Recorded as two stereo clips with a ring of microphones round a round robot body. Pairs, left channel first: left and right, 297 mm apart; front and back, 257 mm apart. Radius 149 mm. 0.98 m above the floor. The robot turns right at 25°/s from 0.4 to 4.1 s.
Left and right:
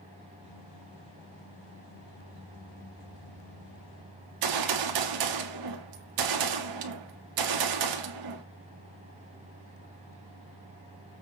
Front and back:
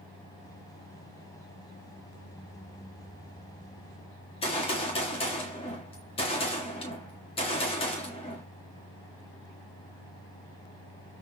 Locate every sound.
4.2 s a gunshot: 75° right, 1.6 m